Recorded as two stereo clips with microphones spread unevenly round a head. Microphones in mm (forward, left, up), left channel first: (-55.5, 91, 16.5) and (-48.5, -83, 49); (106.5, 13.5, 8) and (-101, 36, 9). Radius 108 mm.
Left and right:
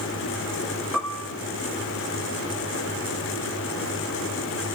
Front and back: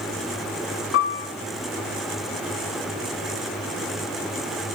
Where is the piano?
5° right, 1.4 m.